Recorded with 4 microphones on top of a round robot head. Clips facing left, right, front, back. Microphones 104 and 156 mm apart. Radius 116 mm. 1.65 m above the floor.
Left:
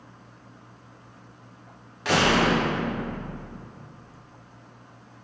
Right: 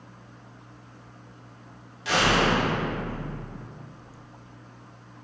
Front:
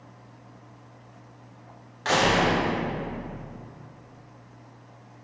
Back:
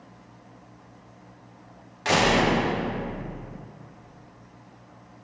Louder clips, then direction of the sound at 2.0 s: Left 2 dB, back 1 dB; 110° left.